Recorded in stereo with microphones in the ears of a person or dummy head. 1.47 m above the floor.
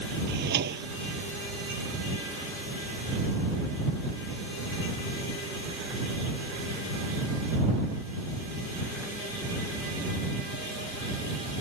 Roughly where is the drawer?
Right.